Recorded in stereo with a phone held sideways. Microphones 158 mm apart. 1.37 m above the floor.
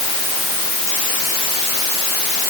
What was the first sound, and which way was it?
Only background noise.